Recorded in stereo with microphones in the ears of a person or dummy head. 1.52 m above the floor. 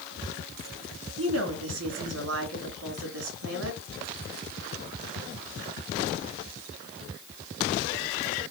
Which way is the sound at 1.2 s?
80° right.